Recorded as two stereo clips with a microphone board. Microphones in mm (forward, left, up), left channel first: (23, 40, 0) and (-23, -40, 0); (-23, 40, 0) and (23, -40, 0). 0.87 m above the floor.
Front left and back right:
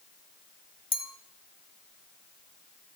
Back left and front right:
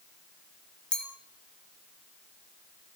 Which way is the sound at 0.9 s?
40° left.